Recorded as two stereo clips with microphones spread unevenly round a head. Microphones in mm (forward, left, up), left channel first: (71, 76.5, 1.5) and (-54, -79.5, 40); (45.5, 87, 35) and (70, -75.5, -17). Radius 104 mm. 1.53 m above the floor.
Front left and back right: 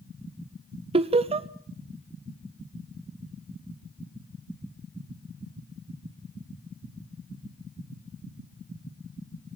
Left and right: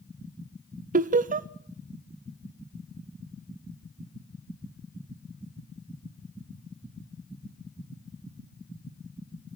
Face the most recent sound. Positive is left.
turn(degrees=-65)